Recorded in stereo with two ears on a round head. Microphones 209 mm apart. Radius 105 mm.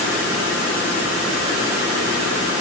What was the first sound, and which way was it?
Only background noise.